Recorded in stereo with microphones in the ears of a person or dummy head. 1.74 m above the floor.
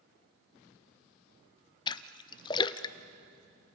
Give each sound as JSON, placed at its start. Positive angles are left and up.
{"t": 1.9, "sound": "a splash", "side_deg": 30, "distance_m": 0.7}